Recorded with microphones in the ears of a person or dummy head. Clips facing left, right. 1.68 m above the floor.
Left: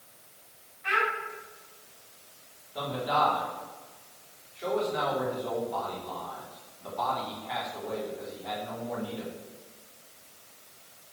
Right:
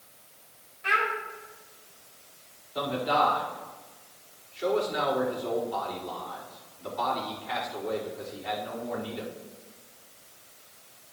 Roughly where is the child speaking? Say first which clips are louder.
Even; right.